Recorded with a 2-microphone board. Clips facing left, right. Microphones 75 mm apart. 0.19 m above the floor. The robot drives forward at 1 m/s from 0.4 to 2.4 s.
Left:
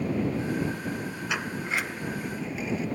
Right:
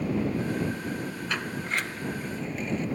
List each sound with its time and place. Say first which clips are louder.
1.3 s a sliding door: left 1 dB; 10° left (ahead or behind); by 2.9 s 5° left (ahead or behind)